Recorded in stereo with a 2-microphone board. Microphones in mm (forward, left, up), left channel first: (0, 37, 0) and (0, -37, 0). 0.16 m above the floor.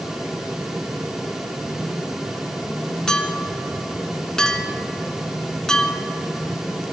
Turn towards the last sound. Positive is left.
turn(degrees=5)  # may be behind; listen again after turning